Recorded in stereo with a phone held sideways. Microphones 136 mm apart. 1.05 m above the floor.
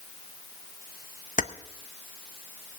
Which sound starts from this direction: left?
Keys jangling, at 1.4 s.